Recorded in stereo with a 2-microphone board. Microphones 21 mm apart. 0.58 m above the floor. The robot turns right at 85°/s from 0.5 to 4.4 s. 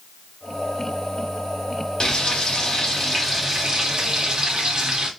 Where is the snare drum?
I don't hear a snare drum.